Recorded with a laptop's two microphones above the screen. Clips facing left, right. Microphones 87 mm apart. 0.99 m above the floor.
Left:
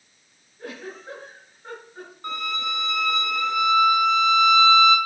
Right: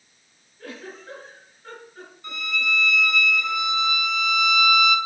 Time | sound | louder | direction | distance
0.6 | a giggle | left 2 dB | 25° left (ahead or behind) | 5 m
2.2 | a violin | even | 45° left (ahead or behind) | 1.8 m